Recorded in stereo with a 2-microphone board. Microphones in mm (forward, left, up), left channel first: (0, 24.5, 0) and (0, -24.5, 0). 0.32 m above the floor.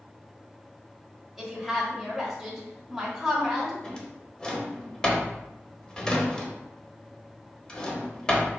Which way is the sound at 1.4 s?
5° right (ahead or behind).